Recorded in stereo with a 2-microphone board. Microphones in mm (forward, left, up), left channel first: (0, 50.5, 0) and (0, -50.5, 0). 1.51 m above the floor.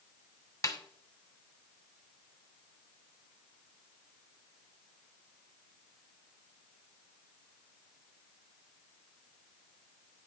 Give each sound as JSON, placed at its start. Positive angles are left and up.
{"t": 0.6, "sound": "a snare drum", "side_deg": 35, "distance_m": 1.1}